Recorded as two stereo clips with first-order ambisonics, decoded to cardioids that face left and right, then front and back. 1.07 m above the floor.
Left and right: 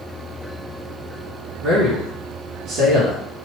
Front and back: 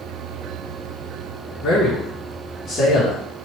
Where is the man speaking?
60° right, 1.2 m.